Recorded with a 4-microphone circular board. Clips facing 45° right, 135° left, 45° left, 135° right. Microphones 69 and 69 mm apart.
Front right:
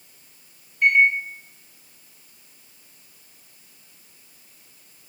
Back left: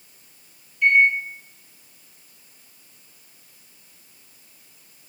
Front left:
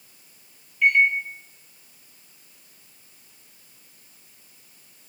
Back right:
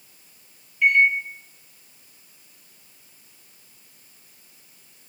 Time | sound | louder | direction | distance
0.8 | a microwave | even, back right 1 dB | 50° right | 0.9 m